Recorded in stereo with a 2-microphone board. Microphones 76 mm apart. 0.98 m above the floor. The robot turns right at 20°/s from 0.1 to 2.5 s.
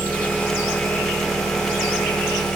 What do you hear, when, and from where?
0.0 s an engine running: 25° left, 1.7 m; by 2.6 s 70° left, 1.7 m